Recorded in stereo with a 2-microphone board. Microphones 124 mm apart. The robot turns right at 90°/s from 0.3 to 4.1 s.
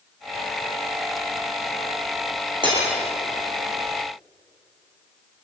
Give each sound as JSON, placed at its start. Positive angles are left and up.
{"t": 2.6, "sound": "breaking glass", "side_deg": -40, "distance_m": 8.0}